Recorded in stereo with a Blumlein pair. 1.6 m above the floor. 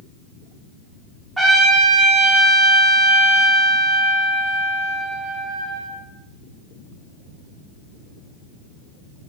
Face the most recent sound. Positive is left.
turn(degrees=-5)